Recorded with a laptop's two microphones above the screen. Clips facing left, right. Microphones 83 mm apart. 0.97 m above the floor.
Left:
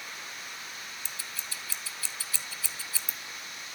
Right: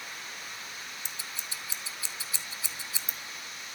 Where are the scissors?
20° right (ahead or behind), 0.8 m.